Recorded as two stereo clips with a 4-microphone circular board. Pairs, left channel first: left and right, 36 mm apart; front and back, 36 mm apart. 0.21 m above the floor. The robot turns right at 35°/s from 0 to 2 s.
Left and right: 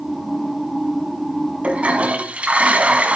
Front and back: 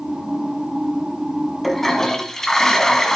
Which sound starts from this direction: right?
A toilet flushing, at 1.6 s.